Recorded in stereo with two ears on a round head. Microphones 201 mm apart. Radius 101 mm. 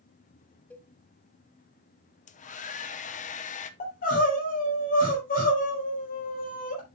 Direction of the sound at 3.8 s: 40° left (ahead or behind).